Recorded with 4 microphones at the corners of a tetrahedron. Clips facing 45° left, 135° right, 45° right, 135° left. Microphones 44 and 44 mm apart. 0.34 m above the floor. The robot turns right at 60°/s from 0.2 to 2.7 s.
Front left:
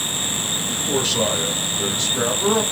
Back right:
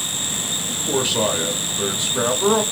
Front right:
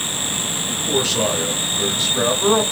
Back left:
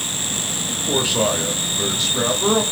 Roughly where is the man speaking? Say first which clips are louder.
Back right 1 dB, even; behind left.